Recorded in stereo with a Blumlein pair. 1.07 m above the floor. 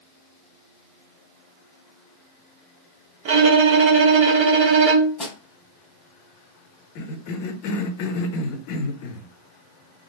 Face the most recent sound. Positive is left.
turn(degrees=45)